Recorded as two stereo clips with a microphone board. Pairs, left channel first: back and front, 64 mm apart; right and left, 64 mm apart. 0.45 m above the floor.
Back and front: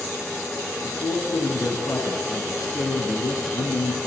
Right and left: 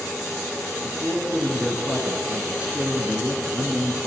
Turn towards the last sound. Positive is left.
turn(degrees=165)